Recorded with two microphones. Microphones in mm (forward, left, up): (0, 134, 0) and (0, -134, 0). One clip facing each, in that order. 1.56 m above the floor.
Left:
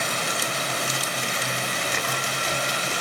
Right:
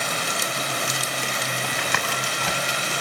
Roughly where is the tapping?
Right.